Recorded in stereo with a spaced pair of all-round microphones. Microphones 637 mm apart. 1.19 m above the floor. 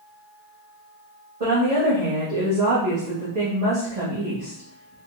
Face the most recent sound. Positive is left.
turn(degrees=-75)  # may be behind; listen again after turning